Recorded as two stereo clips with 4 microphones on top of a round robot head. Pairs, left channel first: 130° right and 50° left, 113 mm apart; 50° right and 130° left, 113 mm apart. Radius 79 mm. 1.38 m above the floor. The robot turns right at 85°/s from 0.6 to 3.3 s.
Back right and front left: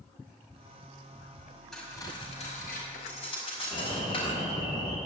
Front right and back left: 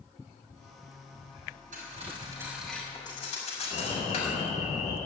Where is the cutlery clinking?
145° left, 5.5 m; by 4.3 s 85° right, 5.5 m.